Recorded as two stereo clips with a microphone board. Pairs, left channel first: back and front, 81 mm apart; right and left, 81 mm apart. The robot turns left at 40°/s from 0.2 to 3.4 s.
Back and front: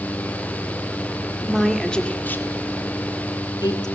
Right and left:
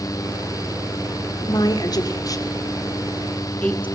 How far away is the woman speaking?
About 1.8 m.